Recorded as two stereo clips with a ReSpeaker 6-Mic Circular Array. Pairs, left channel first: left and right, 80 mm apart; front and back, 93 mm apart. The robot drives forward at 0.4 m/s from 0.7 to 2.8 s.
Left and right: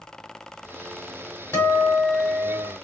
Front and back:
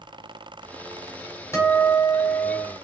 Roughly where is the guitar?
Ahead left.